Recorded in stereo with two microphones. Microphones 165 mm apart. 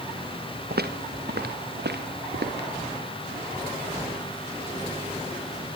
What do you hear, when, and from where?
0.7 s footsteps: 70° right (ahead or behind), 2.5 m; by 2.7 s 80° right, 5 m